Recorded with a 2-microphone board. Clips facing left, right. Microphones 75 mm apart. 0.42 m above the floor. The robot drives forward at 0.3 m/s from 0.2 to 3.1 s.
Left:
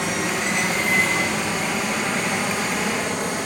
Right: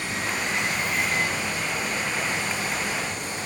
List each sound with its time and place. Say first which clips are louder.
0.0 s running water: left 5 dB; 70° left (ahead or behind), 8 m; by 3.5 s 65° left (ahead or behind), 8 m